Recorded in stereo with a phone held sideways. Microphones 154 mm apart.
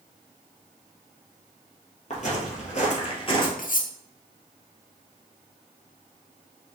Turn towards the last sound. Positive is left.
turn(degrees=65)  # may be behind; listen again after turning